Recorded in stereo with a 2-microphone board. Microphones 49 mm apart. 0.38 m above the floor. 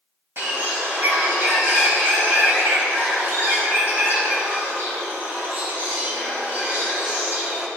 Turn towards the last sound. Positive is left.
turn(degrees=-45)  # may be behind; listen again after turning